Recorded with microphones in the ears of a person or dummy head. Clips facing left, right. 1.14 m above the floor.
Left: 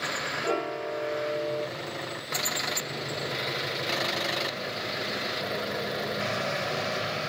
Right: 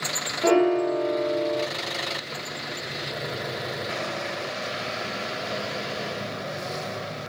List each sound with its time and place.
0.4 s a piano: 80° right, 0.9 m